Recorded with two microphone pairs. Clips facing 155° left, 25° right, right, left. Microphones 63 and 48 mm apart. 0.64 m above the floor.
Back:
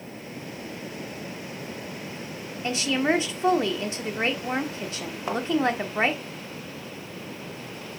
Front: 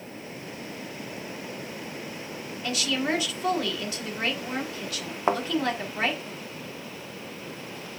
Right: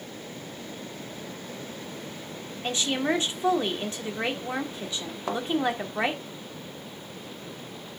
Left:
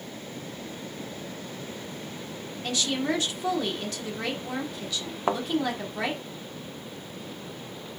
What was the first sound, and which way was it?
A woman speaking, 145° right.